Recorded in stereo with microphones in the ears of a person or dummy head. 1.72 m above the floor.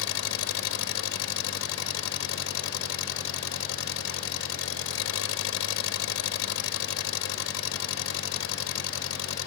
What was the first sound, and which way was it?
An engine running, 80° left.